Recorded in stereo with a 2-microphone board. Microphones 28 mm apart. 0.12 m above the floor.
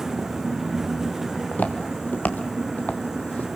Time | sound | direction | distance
1.4 | footsteps | 80° left | 3 m